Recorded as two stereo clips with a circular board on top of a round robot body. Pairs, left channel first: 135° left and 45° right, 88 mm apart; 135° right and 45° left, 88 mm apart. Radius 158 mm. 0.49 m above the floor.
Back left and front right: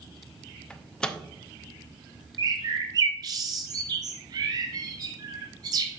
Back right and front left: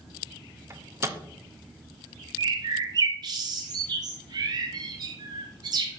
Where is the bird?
Straight ahead, 0.6 m.